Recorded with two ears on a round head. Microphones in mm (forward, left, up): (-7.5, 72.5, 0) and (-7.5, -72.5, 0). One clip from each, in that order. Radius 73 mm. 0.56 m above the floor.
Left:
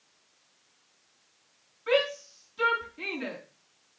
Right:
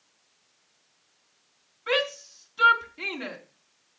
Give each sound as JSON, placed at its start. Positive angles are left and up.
{"t": 1.9, "sound": "a shout", "side_deg": -30, "distance_m": 4.5}